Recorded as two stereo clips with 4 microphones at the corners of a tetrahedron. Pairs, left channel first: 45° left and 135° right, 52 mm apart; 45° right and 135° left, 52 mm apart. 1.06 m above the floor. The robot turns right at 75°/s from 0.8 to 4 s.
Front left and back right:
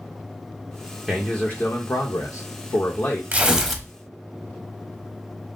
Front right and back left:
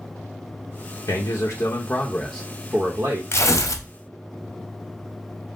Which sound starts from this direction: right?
Tearing paper, at 3.3 s.